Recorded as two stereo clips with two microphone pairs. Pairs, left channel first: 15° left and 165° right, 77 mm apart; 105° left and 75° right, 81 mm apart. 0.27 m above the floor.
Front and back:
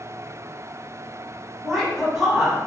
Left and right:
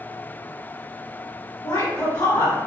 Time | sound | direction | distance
1.6 | a woman speaking | 105° left | 1.6 m